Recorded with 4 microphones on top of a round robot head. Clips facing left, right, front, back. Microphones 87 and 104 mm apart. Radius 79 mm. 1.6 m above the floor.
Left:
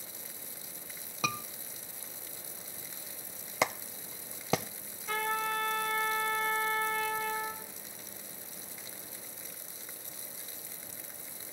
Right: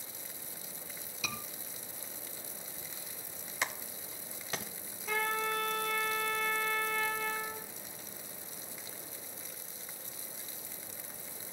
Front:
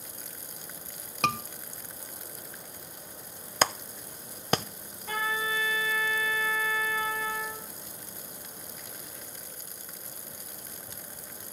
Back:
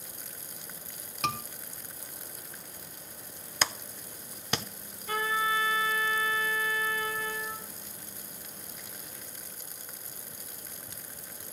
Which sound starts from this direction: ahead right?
A trumpet, at 5.1 s.